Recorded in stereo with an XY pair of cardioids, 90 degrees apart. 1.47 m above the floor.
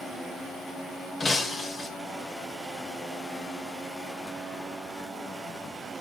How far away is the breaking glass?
About 1.9 m.